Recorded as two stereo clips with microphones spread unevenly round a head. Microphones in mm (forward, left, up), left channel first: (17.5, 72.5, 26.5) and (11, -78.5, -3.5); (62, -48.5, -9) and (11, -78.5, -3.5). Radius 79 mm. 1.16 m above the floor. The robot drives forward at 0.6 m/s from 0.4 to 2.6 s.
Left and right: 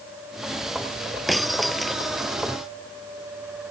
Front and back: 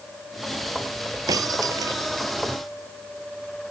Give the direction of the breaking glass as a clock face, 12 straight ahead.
6 o'clock.